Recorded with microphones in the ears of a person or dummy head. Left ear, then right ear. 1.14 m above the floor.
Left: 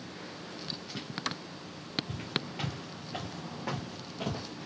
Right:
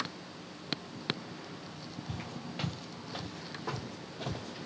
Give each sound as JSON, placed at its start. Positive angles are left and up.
{"t": 2.1, "sound": "footsteps", "side_deg": -10, "distance_m": 1.3}